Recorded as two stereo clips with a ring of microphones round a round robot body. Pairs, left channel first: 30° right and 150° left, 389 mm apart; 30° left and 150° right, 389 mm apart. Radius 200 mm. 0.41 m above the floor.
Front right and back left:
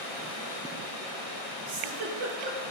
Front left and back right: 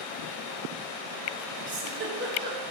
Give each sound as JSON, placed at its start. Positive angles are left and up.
{"t": 1.7, "sound": "a giggle", "azimuth_deg": 150, "distance_m": 4.5}